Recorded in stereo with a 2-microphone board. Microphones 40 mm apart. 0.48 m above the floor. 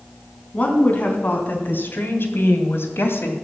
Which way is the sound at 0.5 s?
30° left (ahead or behind).